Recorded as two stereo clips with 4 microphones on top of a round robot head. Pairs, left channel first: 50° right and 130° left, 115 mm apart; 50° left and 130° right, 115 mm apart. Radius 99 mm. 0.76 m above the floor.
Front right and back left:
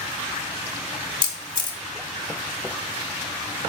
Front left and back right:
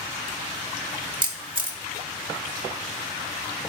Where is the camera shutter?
90° right, 1.7 m.